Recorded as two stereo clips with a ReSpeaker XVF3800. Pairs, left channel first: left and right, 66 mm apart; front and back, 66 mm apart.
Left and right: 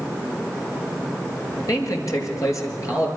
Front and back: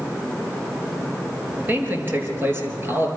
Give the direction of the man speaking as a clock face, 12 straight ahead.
8 o'clock.